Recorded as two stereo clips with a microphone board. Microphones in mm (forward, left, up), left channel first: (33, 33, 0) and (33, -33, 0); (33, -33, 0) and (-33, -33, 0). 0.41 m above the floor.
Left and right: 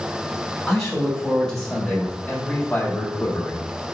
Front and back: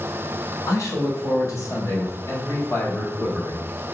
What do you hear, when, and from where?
0.7 s a man speaking: straight ahead, 2.5 m; by 3.7 s 50° left, 1.8 m